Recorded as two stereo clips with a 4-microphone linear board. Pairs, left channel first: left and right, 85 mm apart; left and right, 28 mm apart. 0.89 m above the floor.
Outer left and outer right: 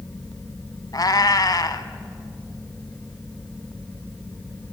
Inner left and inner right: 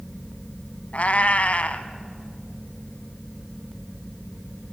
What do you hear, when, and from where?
0.9 s a cat meowing: 50° left (ahead or behind), 1.1 m